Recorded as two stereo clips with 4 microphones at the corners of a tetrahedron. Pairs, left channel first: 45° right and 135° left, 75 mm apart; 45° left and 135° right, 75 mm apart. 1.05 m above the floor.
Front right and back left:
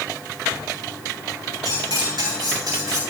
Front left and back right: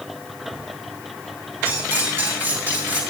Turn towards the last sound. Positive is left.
turn(degrees=165)